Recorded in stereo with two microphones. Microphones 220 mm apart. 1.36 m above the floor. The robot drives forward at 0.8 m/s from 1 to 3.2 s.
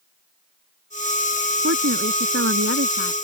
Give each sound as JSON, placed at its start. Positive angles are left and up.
{"t": 1.6, "sound": "a woman speaking", "side_deg": -85}